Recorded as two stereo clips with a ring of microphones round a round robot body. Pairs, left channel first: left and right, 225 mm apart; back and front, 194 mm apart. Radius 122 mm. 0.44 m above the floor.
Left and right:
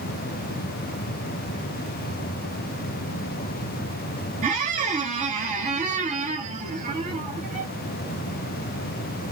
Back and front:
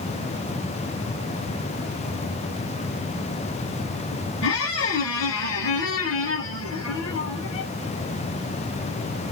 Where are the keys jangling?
I don't hear keys jangling.